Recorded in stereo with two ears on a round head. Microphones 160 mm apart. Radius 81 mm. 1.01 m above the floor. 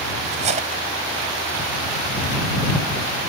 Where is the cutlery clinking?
45° right (ahead or behind).